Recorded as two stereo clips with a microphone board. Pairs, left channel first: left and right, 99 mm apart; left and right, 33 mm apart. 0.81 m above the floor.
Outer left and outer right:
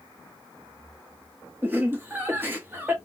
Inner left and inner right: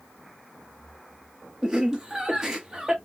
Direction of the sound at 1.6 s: 20° right (ahead or behind).